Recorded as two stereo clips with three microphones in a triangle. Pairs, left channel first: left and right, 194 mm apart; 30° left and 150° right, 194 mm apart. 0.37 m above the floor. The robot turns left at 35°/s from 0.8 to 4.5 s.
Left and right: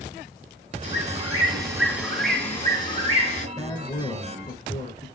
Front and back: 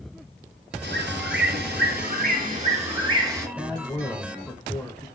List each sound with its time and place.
0.8 s a bird: 135° right, 2.5 m; by 3.5 s 135° left, 2.5 m
3.6 s a man speaking: 140° left, 0.9 m; by 5.1 s 105° left, 0.9 m